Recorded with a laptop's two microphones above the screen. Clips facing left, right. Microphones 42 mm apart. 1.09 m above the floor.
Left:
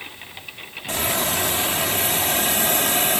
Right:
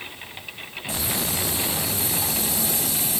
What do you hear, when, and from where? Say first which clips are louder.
0.9 s a hiss: left 5 dB; 65° left (ahead or behind)